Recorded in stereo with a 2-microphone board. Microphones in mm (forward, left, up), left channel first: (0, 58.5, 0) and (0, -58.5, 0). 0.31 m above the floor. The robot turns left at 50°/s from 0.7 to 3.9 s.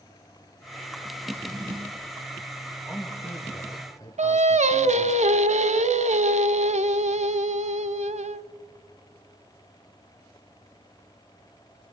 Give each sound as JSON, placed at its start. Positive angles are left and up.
{"t": 1.2, "sound": "a drawer", "azimuth_deg": -15, "distance_m": 2.5}
{"t": 2.9, "sound": "a man speaking", "azimuth_deg": -165, "distance_m": 3.0}
{"t": 4.2, "sound": "singing", "side_deg": -75, "distance_m": 0.6}